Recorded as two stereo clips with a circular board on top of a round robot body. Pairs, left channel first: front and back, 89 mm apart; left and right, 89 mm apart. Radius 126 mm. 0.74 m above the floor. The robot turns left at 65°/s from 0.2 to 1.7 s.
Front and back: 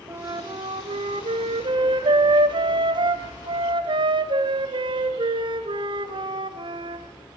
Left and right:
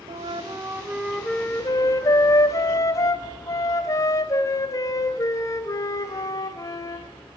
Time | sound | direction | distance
0.1 | a flute | 120° right | 1.6 m